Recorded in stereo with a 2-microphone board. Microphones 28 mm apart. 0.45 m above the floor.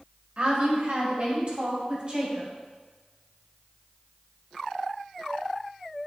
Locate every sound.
0.4 s a woman speaking: 50° right (ahead or behind), 1.9 m; by 2.5 s 30° right (ahead or behind), 3 m